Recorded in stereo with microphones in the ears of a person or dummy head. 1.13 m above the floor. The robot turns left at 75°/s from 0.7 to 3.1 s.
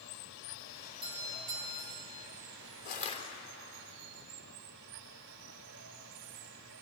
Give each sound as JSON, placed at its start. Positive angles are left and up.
{"t": 0.0, "sound": "running water", "azimuth_deg": 65, "distance_m": 2.5}
{"t": 1.0, "sound": "a doorbell", "azimuth_deg": -25, "distance_m": 5.5}
{"t": 2.9, "sound": "crushing", "side_deg": 50, "distance_m": 3.5}